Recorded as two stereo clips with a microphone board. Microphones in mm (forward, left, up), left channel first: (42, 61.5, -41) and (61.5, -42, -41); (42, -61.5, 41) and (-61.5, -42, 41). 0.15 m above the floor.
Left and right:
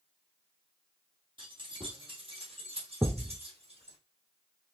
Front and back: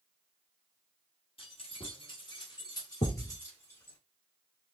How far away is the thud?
About 1.3 m.